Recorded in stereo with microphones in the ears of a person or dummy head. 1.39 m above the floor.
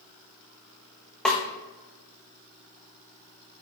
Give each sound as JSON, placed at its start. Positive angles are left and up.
{"t": 1.2, "sound": "a snare drum", "side_deg": 5, "distance_m": 0.5}